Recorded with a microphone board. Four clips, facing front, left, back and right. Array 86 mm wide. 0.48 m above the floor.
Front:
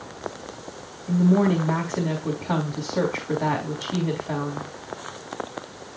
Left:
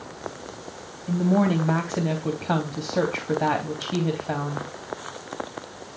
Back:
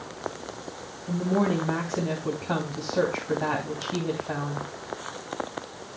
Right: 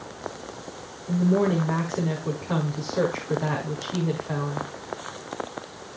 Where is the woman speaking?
85° left, 3 m.